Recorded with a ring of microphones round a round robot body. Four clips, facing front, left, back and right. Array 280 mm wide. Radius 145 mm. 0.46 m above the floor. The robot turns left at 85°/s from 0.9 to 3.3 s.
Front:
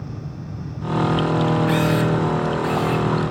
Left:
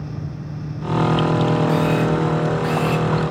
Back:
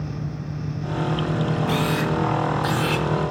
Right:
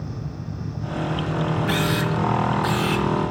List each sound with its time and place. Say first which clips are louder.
1.7 s a camera shutter: left 5 dB, front 4 dB; 70° right, 1.5 m; by 3.1 s 170° left, 1.5 m